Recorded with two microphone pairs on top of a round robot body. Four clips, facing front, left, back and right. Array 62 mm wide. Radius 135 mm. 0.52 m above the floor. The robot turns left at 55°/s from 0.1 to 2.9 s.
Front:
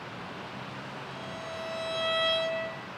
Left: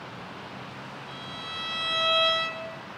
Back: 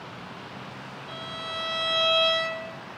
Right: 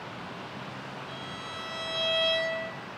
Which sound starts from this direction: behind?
A violin, at 1.1 s.